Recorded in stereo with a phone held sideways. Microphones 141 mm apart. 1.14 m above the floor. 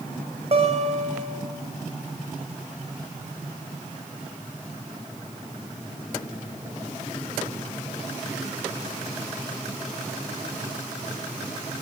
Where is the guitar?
45° right (ahead or behind), 5.5 m.